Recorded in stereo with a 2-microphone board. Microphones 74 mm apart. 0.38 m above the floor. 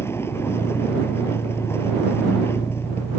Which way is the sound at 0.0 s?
35° left (ahead or behind).